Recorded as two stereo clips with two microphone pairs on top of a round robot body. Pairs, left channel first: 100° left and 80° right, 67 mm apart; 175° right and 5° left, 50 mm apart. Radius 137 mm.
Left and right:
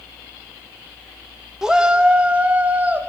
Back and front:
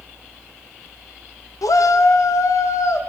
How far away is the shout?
About 0.7 m.